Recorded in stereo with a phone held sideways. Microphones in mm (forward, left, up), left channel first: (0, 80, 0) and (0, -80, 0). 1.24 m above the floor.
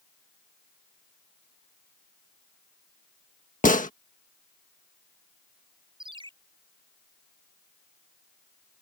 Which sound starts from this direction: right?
A ringtone, at 6.0 s.